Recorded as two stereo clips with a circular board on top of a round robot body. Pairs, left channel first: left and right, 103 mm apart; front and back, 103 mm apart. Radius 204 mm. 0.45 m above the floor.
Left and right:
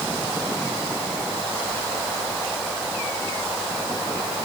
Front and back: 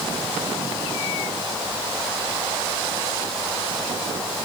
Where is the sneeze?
No sneeze in this recording.